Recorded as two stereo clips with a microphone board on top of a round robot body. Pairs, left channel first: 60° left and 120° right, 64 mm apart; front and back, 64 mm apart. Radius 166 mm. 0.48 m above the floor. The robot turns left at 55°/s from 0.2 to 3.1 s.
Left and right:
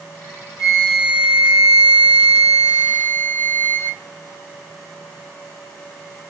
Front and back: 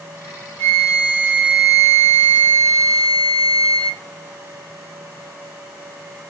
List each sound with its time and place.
0.6 s a flute: 65° left, 1.8 m; by 4.0 s 75° right, 1.8 m